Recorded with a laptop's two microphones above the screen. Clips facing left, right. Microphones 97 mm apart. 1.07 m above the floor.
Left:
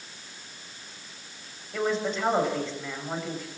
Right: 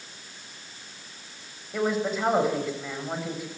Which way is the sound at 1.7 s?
5° right (ahead or behind).